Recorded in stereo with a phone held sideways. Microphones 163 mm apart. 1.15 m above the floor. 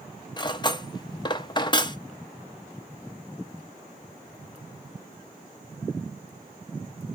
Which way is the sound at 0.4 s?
30° left (ahead or behind).